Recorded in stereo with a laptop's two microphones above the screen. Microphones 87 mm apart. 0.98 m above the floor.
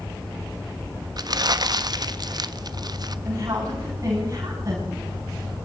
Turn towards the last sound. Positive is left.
turn(degrees=-40)  # may be behind; listen again after turning